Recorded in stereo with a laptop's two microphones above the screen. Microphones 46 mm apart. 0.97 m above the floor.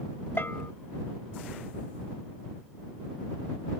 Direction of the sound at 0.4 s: 60° left (ahead or behind).